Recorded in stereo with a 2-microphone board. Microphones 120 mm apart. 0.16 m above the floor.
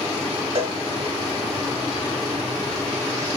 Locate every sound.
0.6 s a cowbell: 65° right (ahead or behind), 0.8 m